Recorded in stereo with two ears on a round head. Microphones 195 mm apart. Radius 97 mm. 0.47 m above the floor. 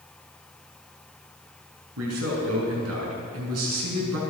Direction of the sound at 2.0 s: 80° right.